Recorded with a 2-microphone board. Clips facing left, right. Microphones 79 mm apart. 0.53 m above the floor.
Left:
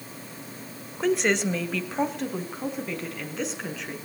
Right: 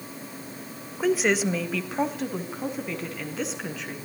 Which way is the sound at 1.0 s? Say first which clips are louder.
Right 1 dB; 5° right (ahead or behind).